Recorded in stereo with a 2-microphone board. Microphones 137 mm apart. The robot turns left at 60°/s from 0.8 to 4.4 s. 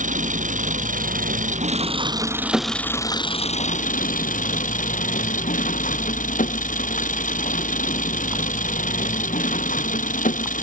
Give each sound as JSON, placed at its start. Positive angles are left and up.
{"t": 0.0, "sound": "an engine running", "azimuth_deg": -70}